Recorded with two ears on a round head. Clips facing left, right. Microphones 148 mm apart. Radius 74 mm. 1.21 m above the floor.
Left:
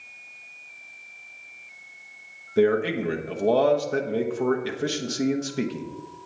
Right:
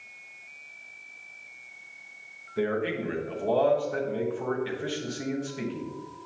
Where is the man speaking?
50° left (ahead or behind), 1.0 m.